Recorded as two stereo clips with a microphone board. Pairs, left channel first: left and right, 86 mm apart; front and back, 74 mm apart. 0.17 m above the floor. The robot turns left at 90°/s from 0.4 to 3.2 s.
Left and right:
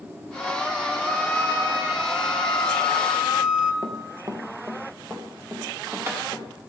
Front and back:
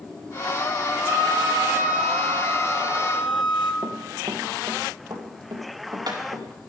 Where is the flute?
175° right, 0.7 m; by 3.7 s 5° right, 0.7 m.